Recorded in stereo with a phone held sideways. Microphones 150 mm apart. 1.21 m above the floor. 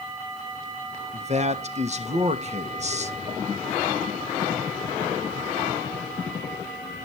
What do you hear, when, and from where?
1.1 s a man speaking: 50° right (ahead or behind), 1.2 m